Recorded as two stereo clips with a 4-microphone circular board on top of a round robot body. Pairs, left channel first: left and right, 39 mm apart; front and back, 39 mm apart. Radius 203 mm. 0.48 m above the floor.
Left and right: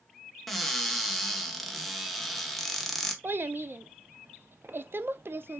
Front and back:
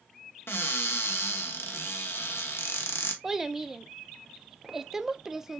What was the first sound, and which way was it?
A cupboard door, 5° left.